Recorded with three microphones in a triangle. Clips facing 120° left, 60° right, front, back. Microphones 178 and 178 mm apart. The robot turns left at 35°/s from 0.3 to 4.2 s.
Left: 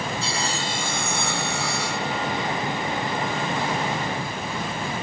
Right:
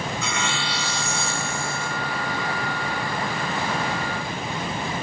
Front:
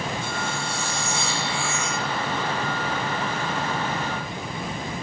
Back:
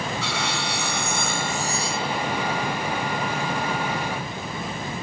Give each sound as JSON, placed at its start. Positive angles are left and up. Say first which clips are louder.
{"t": 0.2, "sound": "sawing", "louder": "even, back 1 dB", "azimuth_deg": 180}